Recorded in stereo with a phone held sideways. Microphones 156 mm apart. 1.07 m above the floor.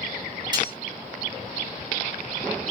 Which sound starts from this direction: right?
Cutlery clinking, at 0.5 s.